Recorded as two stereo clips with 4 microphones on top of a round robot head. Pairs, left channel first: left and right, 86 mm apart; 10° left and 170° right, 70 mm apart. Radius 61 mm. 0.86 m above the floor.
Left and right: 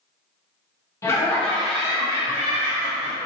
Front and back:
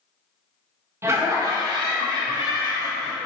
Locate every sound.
1.0 s laughter: 145° left, 0.8 m; by 3.2 s 135° right, 1.4 m